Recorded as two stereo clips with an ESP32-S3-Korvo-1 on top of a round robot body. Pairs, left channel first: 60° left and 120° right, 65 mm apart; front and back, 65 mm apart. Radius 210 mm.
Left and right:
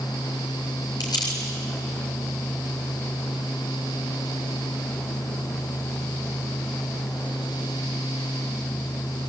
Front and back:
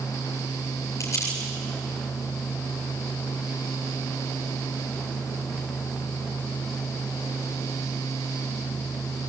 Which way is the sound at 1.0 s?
50° left.